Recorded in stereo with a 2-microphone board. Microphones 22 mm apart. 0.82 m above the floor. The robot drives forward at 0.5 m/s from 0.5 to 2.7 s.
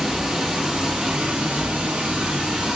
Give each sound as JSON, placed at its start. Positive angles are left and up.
{"t": 0.0, "sound": "running water", "side_deg": -45, "distance_m": 0.9}